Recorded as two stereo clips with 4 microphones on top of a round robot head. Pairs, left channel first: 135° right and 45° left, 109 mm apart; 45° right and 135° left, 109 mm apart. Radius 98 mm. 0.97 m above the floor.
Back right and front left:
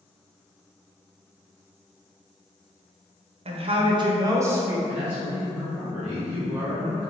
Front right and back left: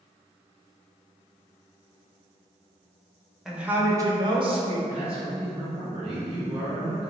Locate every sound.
3.5 s a woman speaking: 50° left, 0.9 m; by 4.8 s 115° left, 1.2 m
4.9 s a man speaking: 120° left, 1.5 m